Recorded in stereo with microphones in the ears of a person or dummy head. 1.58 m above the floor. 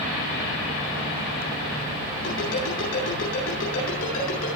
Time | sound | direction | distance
2.2 | a ringtone | 80° left | 8.5 m